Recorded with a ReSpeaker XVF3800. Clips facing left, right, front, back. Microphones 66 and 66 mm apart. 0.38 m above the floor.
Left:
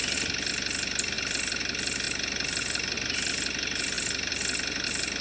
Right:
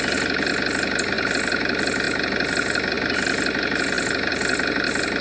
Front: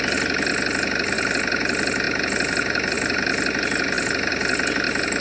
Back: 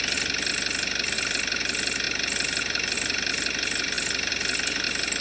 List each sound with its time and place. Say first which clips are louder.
0.0 s an engine running: right 12 dB, front 8 dB; 55° right